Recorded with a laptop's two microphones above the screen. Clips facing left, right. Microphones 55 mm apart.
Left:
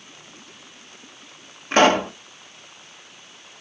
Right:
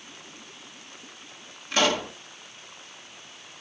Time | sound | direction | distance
1.7 | a pop | 45° left (ahead or behind) | 1.2 m